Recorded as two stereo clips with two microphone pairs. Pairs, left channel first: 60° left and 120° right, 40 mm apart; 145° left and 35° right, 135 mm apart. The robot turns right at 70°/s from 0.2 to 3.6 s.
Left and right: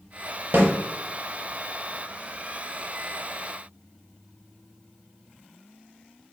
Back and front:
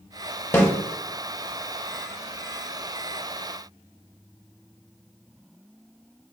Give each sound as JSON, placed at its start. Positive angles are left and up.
{"t": 0.5, "sound": "a snare drum", "azimuth_deg": -145, "distance_m": 0.9}